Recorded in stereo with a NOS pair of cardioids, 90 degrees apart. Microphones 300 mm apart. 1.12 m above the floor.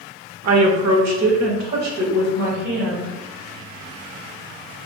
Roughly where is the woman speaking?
Ahead right.